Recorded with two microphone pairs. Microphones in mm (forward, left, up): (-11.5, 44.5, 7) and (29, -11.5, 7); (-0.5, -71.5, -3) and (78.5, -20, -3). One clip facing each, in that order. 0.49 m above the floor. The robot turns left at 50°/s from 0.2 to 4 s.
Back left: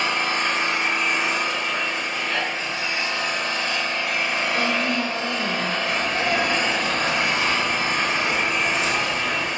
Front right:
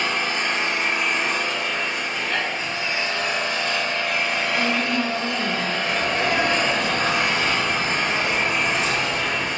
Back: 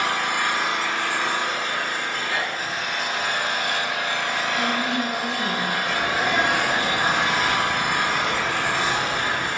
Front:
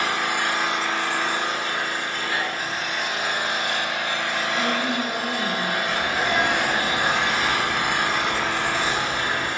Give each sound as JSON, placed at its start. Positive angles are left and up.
{"t": 0.0, "sound": "an engine running", "azimuth_deg": 115, "distance_m": 1.7}
{"t": 4.5, "sound": "a woman speaking", "azimuth_deg": -30, "distance_m": 1.3}
{"t": 5.8, "sound": "a sneeze", "azimuth_deg": -80, "distance_m": 2.0}